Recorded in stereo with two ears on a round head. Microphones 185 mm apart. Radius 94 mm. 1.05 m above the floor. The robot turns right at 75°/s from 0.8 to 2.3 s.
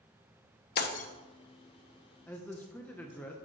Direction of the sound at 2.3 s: 10° left (ahead or behind).